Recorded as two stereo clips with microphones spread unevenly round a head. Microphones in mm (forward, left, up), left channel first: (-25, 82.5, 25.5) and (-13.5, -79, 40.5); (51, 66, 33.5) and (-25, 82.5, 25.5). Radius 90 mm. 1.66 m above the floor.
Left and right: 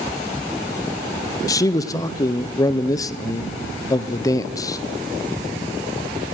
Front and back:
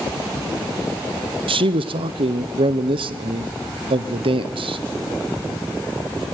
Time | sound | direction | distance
1.5 | a man speaking | 165° left | 0.9 m